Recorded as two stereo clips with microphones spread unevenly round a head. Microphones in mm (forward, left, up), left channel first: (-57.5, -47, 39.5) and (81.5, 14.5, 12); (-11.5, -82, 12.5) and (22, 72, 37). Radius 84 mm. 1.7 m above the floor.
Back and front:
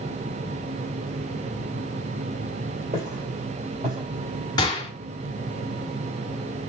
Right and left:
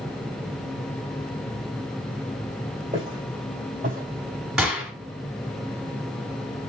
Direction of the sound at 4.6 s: 155° left.